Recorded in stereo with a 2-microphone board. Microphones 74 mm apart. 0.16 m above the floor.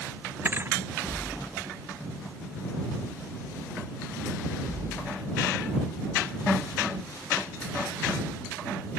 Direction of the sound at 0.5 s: 30° right (ahead or behind).